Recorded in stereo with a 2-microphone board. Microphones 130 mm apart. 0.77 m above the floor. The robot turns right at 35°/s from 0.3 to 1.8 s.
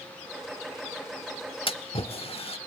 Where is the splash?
45° left (ahead or behind), 0.9 m; by 2.6 s 50° left (ahead or behind), 0.9 m.